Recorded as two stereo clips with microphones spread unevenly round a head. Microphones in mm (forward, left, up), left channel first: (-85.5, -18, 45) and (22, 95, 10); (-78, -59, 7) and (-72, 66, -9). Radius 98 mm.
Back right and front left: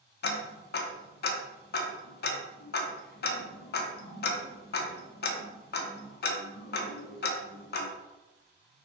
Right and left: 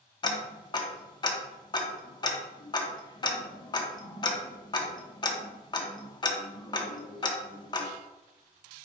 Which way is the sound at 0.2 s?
150° right.